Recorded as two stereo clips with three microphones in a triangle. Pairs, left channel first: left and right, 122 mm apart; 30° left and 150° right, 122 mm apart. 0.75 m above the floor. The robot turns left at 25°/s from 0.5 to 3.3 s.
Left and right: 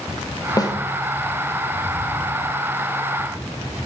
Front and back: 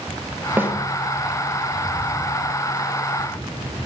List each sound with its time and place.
0.6 s a snare drum: 140° left, 1.3 m; by 0.8 s 135° left, 1.3 m